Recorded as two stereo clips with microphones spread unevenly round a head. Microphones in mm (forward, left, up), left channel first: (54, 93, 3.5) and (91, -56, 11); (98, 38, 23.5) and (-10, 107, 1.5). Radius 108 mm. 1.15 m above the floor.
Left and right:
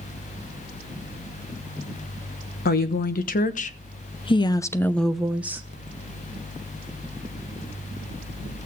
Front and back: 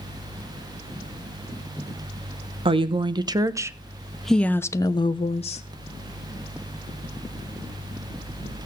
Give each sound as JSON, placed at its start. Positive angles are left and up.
{"t": 2.6, "sound": "a woman speaking", "azimuth_deg": 110, "distance_m": 1.3}